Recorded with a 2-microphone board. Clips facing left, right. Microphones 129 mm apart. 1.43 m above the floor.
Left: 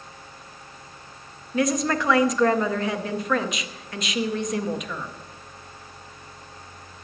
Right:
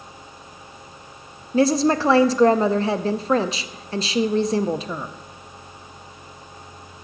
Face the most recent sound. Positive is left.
turn(degrees=-30)  # may be behind; listen again after turning